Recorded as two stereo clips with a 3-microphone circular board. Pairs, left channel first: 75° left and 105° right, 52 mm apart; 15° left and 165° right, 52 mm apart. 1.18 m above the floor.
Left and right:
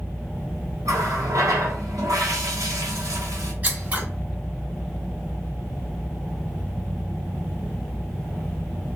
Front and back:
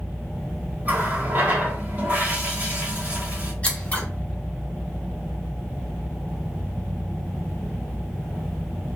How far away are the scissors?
About 1.2 m.